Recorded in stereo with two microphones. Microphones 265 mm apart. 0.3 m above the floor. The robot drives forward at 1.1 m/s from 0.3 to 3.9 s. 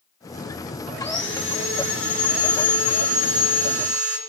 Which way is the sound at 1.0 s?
45° left (ahead or behind).